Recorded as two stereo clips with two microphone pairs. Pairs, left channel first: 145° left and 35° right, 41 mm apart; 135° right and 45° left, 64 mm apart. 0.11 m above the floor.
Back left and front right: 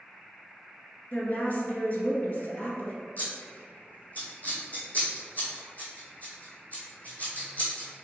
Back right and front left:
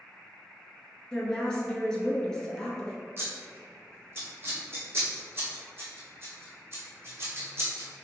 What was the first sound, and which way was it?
A woman speaking, 150° left.